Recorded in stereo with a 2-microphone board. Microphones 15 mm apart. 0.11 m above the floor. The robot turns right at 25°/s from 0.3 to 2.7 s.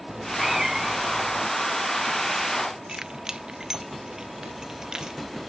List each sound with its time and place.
0.1 s a cat meowing: 35° right; by 1.5 s 5° right
2.9 s keys jangling: 40° right (ahead or behind)